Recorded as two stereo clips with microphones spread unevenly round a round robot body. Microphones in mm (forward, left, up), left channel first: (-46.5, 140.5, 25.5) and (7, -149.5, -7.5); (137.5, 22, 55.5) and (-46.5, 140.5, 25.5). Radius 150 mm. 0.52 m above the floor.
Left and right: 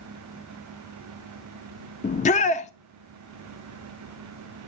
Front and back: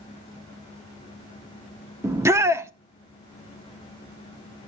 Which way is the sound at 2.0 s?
135° left.